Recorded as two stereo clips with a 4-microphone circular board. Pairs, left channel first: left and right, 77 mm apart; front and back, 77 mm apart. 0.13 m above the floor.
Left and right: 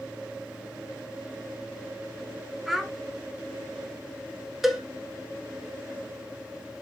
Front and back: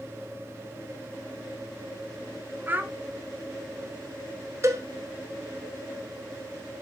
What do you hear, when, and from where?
2.7 s a child speaking: 175° right, 0.7 m
4.6 s a cowbell: 175° right, 1.3 m